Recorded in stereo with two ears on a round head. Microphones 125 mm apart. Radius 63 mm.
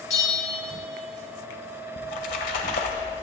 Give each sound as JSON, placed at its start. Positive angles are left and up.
{"t": 0.1, "sound": "a bell", "side_deg": 20, "distance_m": 1.9}
{"t": 2.0, "sound": "a splash", "side_deg": 60, "distance_m": 1.6}